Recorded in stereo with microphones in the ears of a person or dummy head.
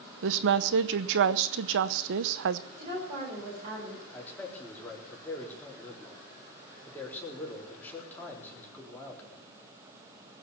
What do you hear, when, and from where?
0.2 s a woman speaking: 70° right (ahead or behind), 0.8 m
2.8 s a woman speaking: 35° right (ahead or behind), 4.5 m
4.1 s a man speaking: 10° left (ahead or behind), 4 m